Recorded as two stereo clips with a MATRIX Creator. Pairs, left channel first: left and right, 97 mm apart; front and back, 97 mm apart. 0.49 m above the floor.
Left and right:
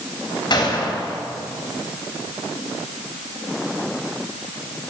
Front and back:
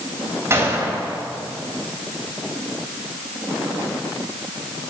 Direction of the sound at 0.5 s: 120° left.